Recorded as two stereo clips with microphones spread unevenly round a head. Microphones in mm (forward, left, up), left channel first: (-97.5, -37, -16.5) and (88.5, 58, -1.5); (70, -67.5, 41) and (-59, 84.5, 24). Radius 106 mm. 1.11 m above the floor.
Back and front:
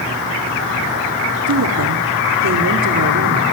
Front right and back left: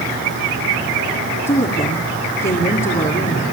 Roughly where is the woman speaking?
Ahead.